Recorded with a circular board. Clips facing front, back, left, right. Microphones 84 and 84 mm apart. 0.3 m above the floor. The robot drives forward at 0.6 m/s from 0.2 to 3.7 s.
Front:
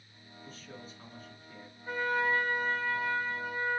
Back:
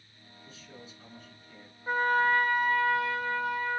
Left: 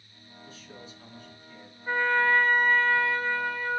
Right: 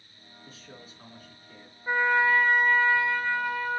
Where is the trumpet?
165° right, 0.6 m; by 3.8 s 175° right, 1.6 m.